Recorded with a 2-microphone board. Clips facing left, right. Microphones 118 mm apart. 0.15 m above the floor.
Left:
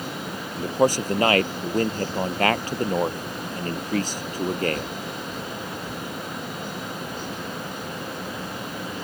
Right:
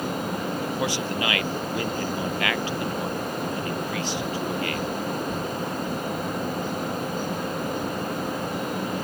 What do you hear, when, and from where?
0.6 s a man speaking: 40° left (ahead or behind)